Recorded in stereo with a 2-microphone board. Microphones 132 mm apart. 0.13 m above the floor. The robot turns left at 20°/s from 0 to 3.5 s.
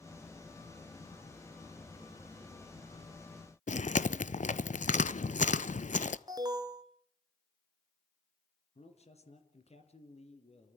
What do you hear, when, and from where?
3.7 s chewing: 65° left (ahead or behind), 0.5 m
6.3 s an alarm: 30° right (ahead or behind), 1.4 m
8.8 s a man speaking: 55° left (ahead or behind), 3 m